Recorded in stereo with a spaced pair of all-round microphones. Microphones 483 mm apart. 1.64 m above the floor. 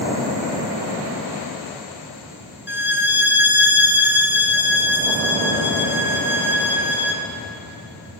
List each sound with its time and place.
2.7 s a violin: 20° left (ahead or behind), 0.7 m